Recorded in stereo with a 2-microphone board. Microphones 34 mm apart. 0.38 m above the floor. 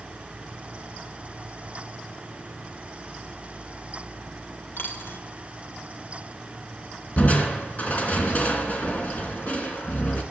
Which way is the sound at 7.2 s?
45° left (ahead or behind).